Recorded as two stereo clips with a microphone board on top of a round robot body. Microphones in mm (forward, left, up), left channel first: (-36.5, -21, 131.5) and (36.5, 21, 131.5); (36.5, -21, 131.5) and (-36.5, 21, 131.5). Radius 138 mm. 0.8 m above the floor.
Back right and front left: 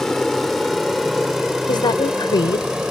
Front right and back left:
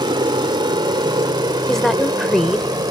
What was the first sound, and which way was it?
An aircraft, 125° left.